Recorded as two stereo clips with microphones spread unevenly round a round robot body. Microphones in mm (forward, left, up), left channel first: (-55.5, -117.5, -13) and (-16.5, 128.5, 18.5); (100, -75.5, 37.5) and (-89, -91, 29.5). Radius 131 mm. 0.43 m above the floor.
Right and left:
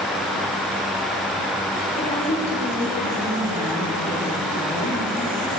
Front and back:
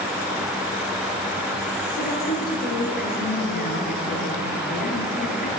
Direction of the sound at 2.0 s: 30° right.